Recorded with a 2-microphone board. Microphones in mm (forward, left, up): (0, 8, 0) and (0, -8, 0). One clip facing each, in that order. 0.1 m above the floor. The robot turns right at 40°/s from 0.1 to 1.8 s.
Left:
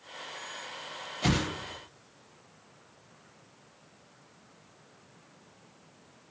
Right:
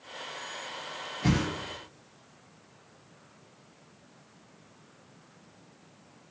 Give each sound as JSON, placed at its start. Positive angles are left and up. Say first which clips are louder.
{"t": 1.2, "sound": "a whoosh", "louder": "even", "side_deg": 50, "distance_m": 0.6}